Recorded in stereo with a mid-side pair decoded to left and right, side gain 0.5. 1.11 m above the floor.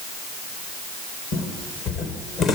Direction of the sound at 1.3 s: 65° left.